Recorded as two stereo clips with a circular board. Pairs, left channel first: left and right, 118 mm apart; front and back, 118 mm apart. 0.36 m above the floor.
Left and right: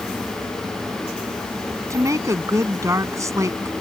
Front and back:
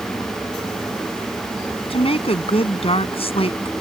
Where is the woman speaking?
30° right.